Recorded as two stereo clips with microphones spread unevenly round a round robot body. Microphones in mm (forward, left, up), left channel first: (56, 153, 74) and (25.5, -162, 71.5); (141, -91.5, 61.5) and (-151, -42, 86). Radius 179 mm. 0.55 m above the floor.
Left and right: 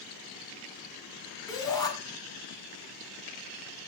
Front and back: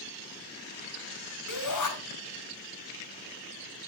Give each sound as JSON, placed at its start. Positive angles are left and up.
{"t": 1.5, "sound": "a shout", "azimuth_deg": 5, "distance_m": 4.5}